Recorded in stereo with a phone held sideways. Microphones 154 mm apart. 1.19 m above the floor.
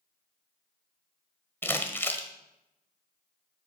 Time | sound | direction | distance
1.6 | crumpling | 15° left (ahead or behind) | 1.2 m